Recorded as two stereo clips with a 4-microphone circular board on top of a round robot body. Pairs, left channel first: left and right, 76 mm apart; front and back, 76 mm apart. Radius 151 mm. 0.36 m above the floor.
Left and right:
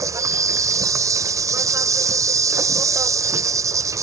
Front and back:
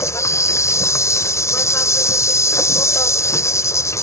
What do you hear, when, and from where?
0.0 s an insect: 50° right